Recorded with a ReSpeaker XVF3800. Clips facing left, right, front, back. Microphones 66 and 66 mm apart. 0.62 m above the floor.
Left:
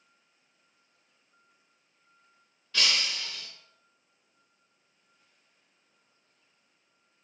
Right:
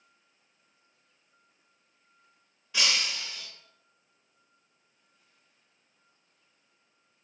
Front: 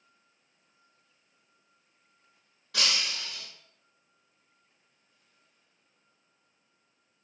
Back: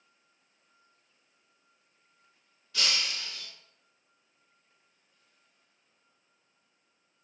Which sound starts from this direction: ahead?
Breaking glass, at 2.7 s.